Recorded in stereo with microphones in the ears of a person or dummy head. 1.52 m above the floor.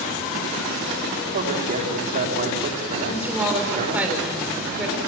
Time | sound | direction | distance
1.3 | a man speaking | 45° right (ahead or behind) | 5 m
3.1 | a woman speaking | 10° right (ahead or behind) | 6.5 m